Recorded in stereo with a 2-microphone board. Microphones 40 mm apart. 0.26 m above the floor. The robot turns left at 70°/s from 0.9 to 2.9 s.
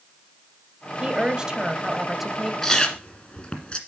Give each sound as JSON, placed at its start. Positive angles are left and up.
{"t": 1.0, "sound": "a woman speaking", "side_deg": -20, "distance_m": 1.0}
{"t": 2.6, "sound": "chewing", "side_deg": 5, "distance_m": 1.5}